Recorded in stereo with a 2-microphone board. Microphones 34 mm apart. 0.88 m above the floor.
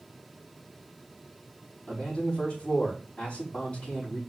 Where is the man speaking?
35° left (ahead or behind), 5 m.